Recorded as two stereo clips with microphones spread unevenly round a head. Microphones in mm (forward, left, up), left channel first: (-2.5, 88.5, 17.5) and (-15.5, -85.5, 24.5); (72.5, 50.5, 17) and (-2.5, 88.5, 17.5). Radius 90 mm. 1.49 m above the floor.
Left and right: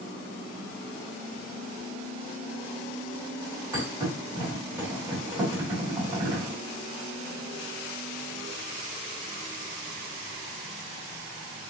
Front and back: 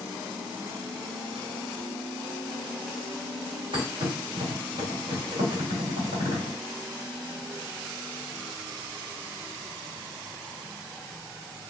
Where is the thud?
165° right, 2.5 m.